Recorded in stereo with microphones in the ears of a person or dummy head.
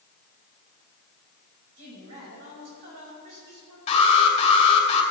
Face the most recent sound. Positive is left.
turn(degrees=35)  # may be behind; listen again after turning